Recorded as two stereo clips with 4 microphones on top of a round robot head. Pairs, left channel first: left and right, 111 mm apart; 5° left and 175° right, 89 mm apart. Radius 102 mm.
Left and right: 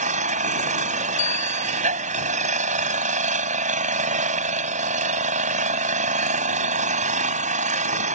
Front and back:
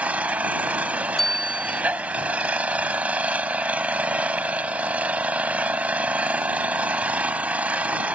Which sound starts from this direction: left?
A bicycle bell, at 1.2 s.